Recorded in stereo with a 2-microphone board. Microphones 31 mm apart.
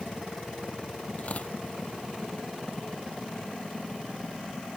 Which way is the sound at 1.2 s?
50° left (ahead or behind).